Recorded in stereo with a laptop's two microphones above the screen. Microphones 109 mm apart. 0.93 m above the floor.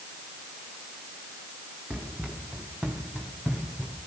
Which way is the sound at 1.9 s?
10° right (ahead or behind).